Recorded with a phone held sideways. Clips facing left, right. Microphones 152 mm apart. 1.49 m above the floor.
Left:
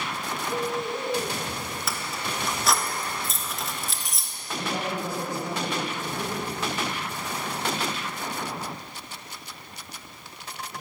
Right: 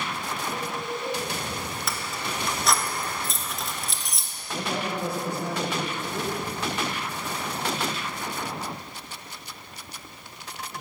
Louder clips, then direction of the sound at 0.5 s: Left 3 dB; 45° left (ahead or behind).